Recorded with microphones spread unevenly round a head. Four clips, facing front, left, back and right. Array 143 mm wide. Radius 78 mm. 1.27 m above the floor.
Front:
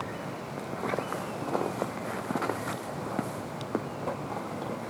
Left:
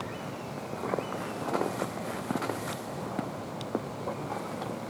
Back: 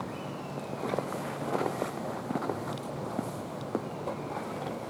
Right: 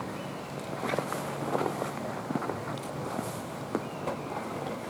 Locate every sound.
Only background noise.